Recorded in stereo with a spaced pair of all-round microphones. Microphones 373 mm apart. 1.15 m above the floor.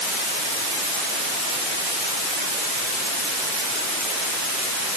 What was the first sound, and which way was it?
Only background noise.